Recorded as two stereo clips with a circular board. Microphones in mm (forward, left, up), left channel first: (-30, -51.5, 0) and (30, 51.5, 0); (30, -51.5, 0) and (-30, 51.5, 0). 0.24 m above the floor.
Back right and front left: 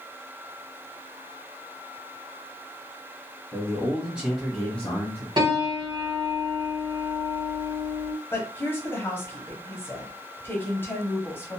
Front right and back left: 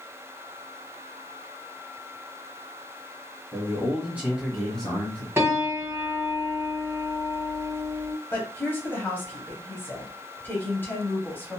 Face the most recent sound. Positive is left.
turn(degrees=-95)